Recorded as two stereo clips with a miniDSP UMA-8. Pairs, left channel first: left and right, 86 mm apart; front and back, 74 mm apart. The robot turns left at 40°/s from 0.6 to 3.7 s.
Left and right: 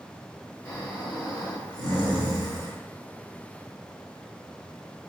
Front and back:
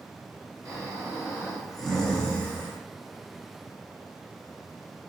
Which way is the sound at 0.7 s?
135° left.